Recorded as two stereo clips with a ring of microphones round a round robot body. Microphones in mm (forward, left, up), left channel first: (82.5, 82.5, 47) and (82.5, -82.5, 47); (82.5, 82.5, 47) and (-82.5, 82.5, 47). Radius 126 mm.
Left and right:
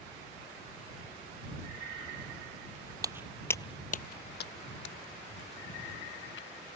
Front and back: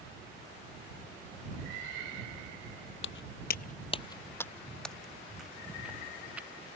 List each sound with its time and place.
3.0 s footsteps: 25° right; by 6.5 s 100° left